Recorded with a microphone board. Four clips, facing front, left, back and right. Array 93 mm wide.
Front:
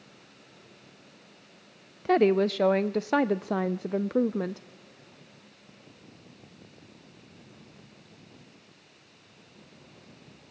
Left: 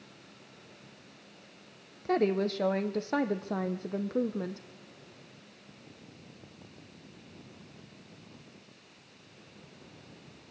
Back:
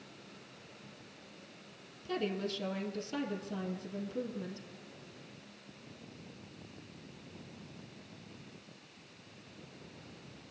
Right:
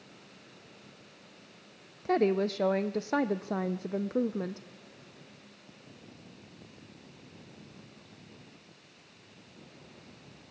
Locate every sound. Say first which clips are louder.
2.0 s a woman speaking: right 1 dB, front 14 dB; 5° right, 0.6 m